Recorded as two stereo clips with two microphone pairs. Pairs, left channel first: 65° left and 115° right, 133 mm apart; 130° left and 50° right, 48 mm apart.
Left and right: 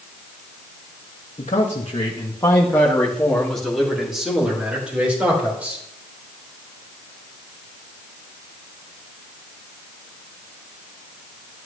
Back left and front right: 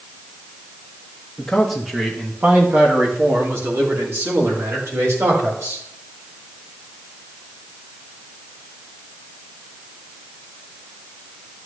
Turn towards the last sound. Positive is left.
turn(degrees=-40)